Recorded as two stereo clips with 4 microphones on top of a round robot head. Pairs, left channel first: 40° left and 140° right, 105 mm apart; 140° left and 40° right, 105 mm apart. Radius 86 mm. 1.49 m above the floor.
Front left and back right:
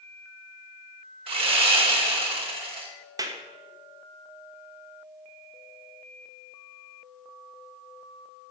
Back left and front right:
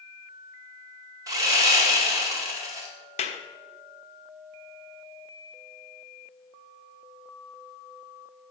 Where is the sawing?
100° right, 2.5 m.